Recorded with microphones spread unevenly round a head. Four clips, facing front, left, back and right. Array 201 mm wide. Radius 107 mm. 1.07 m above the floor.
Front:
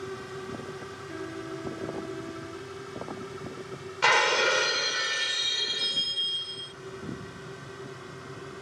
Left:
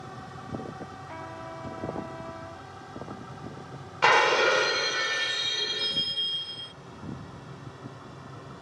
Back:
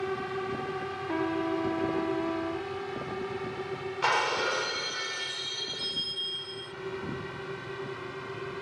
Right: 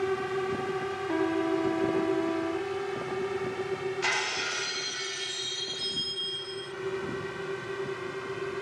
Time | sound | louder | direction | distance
0.0 | a drone | right 13 dB, back 5 dB | 115° right | ?
1.1 | a trumpet | right 16 dB, back 9 dB | 135° right | ?
4.0 | breaking glass | left 11 dB, front 4 dB | 65° left | ?